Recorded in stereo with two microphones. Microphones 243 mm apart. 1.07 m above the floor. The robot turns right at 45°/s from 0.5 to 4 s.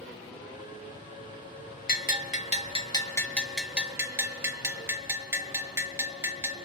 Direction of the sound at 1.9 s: 105° left.